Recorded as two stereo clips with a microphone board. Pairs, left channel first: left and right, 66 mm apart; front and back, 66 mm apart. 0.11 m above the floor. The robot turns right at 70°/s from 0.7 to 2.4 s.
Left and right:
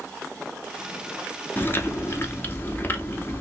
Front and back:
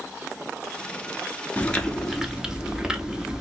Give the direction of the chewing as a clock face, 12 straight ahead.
10 o'clock.